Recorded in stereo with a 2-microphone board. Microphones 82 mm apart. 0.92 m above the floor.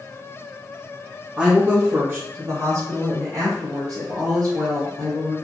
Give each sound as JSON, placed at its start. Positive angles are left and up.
{"t": 1.4, "sound": "a woman speaking", "side_deg": -10, "distance_m": 0.9}